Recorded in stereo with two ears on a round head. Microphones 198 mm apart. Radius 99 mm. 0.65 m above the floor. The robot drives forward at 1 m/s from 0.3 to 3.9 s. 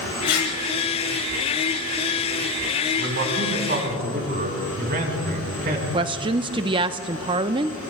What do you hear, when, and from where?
0.3 s tearing paper: 55° left (ahead or behind), 5.5 m
3.0 s a man speaking: 55° right (ahead or behind), 3.5 m; by 5.8 s 45° right (ahead or behind), 4.5 m
5.9 s a woman speaking: 20° right (ahead or behind), 0.6 m